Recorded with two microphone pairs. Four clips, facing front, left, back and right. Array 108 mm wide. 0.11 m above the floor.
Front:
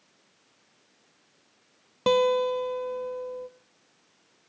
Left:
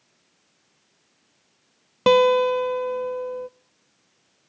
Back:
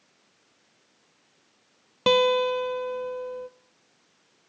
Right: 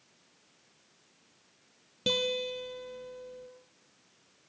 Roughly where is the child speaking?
I don't hear a child speaking.